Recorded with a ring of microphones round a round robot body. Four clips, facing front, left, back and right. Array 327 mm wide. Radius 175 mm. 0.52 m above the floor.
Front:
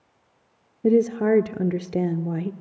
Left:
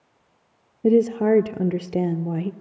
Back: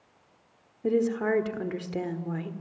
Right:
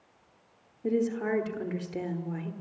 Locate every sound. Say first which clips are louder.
0.8 s a woman speaking: left 11 dB, front 6 dB; 55° left, 1.3 m